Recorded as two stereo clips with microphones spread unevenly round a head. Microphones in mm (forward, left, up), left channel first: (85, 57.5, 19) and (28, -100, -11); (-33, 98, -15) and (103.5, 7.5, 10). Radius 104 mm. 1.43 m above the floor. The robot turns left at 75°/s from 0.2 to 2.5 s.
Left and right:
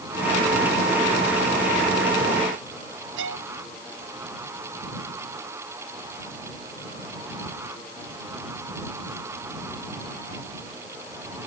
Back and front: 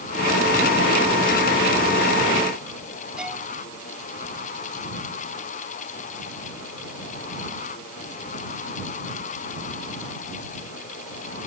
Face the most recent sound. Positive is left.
turn(degrees=-120)